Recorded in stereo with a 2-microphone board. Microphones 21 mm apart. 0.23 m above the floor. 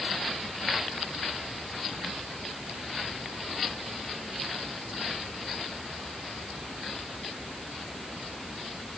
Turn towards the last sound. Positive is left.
No sound to turn to.